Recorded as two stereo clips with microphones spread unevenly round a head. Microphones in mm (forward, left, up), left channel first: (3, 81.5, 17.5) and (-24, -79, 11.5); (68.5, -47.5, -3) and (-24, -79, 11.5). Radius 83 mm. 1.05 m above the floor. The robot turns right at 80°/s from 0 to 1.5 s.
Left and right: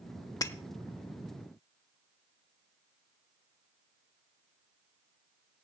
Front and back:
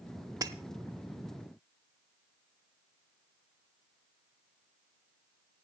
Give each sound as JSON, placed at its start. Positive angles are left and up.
{"t": 0.4, "sound": "breaking glass", "azimuth_deg": 145, "distance_m": 1.1}